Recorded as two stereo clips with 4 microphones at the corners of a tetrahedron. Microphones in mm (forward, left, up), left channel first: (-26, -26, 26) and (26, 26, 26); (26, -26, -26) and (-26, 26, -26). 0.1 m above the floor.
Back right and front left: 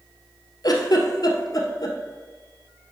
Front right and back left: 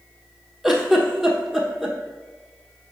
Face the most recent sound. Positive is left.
turn(degrees=-140)